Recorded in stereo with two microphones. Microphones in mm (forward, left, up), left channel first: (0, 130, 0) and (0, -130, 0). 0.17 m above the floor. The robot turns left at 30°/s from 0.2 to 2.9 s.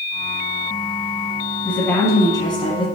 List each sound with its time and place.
1.6 s a woman speaking: 5° left (ahead or behind), 1.4 m; by 2.9 s 20° left (ahead or behind), 1.4 m